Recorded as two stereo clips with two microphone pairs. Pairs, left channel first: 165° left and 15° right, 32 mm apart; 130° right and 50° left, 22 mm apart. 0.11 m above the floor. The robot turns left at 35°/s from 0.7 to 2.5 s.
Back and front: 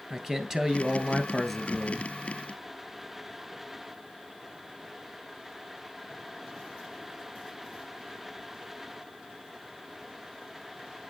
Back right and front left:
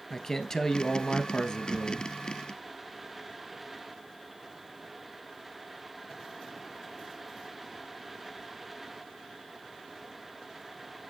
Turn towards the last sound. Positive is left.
turn(degrees=-140)